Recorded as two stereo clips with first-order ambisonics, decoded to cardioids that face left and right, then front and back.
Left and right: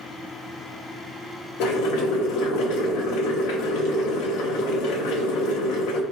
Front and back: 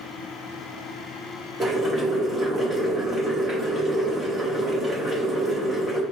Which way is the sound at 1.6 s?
105° left.